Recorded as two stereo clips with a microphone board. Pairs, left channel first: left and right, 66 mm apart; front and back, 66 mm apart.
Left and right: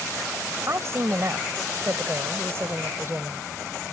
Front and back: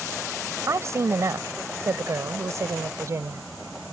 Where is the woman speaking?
135° right; by 3.5 s 140° right.